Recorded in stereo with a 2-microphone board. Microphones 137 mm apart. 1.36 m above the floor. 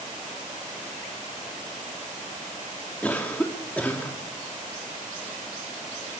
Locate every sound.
3.0 s a cough: 10° left (ahead or behind), 3 m